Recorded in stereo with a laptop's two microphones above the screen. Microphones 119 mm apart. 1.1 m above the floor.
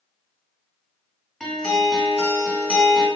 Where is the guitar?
5° left (ahead or behind), 2 m.